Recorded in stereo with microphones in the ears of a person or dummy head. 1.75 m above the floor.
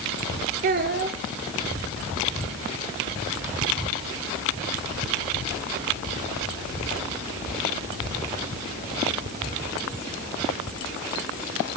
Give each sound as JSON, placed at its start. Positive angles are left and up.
{"t": 0.6, "sound": "a child speaking", "side_deg": -45, "distance_m": 0.7}